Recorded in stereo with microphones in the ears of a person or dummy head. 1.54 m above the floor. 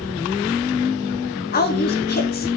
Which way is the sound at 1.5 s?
45° left (ahead or behind).